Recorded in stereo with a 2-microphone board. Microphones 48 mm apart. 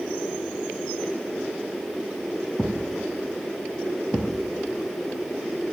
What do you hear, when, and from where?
2.6 s a thud: 55° left (ahead or behind), 2 m